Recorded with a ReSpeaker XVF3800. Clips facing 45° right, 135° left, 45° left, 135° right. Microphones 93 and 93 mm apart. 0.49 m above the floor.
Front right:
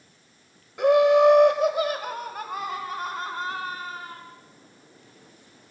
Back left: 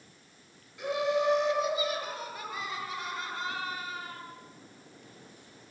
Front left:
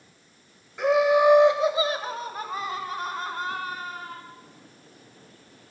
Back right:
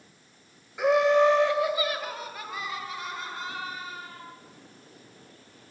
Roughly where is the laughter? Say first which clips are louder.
Front right 12 dB, front left 1 dB; ahead right.